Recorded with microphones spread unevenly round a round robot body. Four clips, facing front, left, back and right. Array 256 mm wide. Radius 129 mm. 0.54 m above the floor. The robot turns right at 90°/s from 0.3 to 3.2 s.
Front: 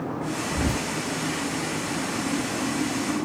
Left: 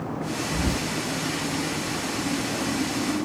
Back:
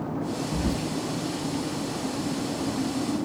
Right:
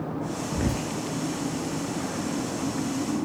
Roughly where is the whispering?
Ahead right.